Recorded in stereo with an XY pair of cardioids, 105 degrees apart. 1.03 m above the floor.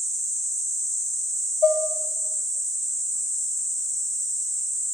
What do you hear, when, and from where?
1.6 s dishes clattering: 55° left, 1.2 m